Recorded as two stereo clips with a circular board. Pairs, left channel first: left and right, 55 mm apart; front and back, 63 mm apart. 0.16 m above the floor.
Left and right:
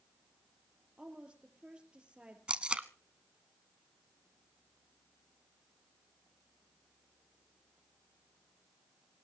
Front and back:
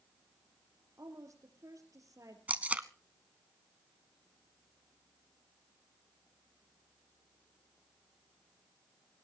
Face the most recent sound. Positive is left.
turn(degrees=-135)